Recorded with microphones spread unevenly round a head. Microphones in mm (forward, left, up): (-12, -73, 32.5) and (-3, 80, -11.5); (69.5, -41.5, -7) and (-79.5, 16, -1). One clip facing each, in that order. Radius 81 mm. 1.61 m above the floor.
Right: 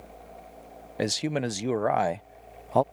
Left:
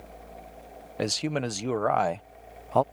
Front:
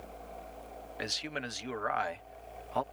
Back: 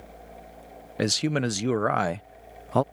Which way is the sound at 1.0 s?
175° right.